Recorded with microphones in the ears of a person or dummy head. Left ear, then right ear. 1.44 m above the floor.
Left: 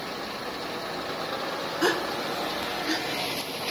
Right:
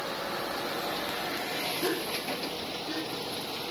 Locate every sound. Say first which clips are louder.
1.8 s a gasp: left 5 dB; 70° left (ahead or behind), 1.0 m